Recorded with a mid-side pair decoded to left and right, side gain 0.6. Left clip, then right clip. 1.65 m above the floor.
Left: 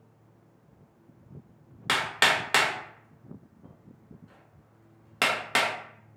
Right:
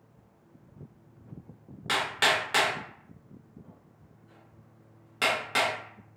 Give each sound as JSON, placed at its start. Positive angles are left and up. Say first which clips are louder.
{"t": 1.9, "sound": "hammering", "louder": "left 2 dB", "azimuth_deg": 40, "distance_m": 0.8}